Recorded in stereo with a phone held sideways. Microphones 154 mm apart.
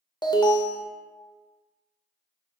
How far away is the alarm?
About 0.5 m.